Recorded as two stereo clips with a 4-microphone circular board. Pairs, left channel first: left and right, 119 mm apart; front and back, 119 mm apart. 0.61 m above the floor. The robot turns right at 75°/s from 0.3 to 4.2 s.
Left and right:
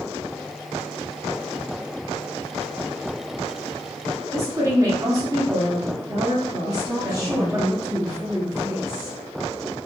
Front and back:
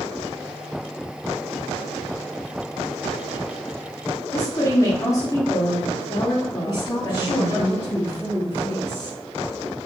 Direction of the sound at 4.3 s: 45° right.